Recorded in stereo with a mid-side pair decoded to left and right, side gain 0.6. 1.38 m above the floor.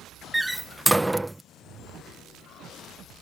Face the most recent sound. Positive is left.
turn(degrees=-5)